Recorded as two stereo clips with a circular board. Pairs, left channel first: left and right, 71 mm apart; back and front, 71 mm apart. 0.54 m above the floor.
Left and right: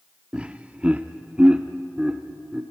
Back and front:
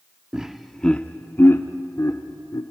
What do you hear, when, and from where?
0.3 s laughter: 50° right, 0.8 m; by 2.6 s 165° right, 1.4 m